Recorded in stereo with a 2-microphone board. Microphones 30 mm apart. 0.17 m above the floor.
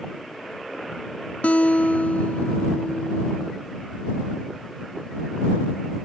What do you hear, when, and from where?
1.4 s a guitar: 55° left (ahead or behind)